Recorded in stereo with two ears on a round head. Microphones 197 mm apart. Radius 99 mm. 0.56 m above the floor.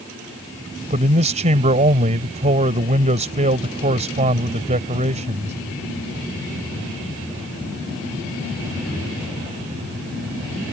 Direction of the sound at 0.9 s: 35° right (ahead or behind).